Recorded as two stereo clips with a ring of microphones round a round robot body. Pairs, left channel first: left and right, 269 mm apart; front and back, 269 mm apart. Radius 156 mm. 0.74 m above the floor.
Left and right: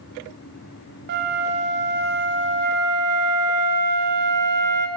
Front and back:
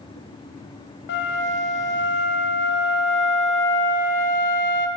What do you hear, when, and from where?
1.1 s a flute: 45° right, 1.0 m